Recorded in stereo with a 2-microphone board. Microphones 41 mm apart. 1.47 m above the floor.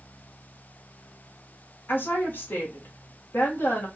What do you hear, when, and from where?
1.9 s a woman speaking: 50° left (ahead or behind), 1.7 m